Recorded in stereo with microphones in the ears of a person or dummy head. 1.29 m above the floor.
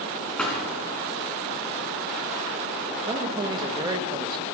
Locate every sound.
0.4 s a thud: 5° left (ahead or behind), 3 m
3.1 s a man speaking: 25° right (ahead or behind), 1.0 m